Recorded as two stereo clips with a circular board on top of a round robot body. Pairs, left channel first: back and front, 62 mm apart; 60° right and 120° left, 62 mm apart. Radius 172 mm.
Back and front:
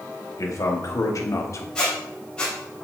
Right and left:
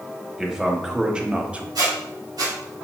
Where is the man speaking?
160° right, 2 m; by 1.6 s 175° right, 1.2 m.